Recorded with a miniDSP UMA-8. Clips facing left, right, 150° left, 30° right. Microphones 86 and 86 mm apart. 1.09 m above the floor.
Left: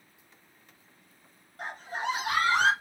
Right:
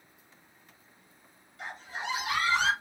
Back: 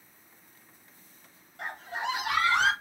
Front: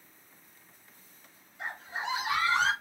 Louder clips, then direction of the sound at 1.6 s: Left 4 dB, back 2 dB; 135° left.